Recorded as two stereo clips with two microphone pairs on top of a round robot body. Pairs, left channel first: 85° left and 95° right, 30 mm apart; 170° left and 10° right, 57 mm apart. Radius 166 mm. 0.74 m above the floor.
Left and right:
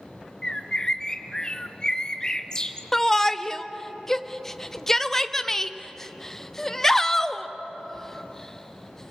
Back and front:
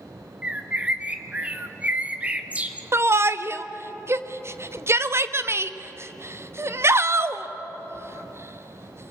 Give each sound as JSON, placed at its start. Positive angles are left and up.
{"t": 0.4, "sound": "a bird", "azimuth_deg": 50, "distance_m": 1.7}
{"t": 2.9, "sound": "a shout", "azimuth_deg": 25, "distance_m": 1.4}